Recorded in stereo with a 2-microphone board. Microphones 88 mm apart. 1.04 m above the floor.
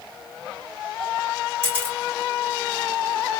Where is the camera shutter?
25° right (ahead or behind), 1.4 m.